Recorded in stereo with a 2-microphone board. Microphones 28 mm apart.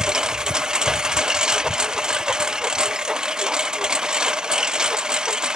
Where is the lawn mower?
25° right (ahead or behind); by 5.6 s 30° right (ahead or behind).